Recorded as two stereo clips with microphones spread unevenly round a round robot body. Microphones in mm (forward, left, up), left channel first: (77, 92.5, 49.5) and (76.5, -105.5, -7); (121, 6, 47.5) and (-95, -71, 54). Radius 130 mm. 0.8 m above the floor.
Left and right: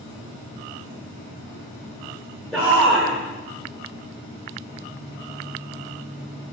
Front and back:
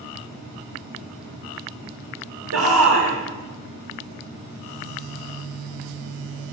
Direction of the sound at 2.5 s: Straight behind.